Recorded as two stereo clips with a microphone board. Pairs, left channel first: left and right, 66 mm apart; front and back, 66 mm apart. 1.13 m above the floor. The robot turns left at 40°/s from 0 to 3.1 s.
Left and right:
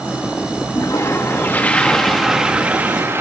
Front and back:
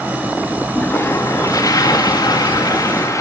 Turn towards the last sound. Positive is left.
turn(degrees=-35)